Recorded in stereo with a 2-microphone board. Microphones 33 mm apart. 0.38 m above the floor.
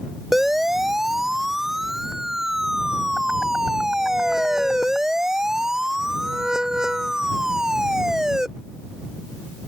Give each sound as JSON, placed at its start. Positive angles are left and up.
{"t": 0.3, "sound": "a siren", "side_deg": -10}